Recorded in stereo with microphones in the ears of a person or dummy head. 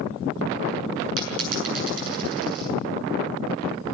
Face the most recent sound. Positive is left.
turn(degrees=-80)